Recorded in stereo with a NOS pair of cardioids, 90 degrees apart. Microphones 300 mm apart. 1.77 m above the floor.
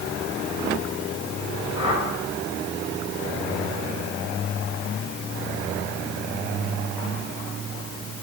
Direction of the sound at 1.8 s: 55° left.